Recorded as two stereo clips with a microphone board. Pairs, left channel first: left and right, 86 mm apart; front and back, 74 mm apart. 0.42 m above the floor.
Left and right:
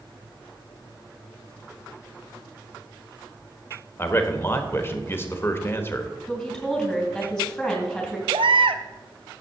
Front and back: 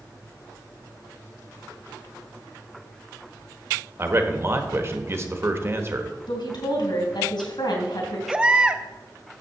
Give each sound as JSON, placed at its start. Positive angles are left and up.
{"t": 4.0, "sound": "a man speaking", "azimuth_deg": 145, "distance_m": 1.2}
{"t": 6.3, "sound": "a woman speaking", "azimuth_deg": 0, "distance_m": 3.5}
{"t": 8.3, "sound": "a baby crying", "azimuth_deg": -100, "distance_m": 0.6}